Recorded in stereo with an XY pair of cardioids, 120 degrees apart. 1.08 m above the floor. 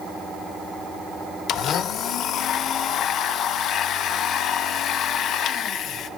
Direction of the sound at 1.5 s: 65° left.